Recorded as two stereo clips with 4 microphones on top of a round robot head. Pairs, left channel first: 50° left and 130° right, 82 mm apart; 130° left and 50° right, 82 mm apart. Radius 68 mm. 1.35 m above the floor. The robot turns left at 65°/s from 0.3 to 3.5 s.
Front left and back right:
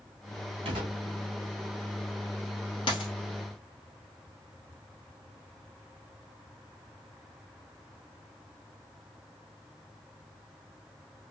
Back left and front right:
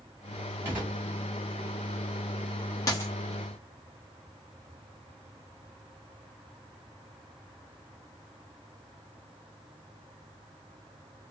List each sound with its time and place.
0.7 s a gunshot: 115° right, 2.0 m; by 1.0 s 135° right, 2.0 m
2.9 s a dropped coin: 85° left, 1.0 m; by 3.1 s 70° left, 1.0 m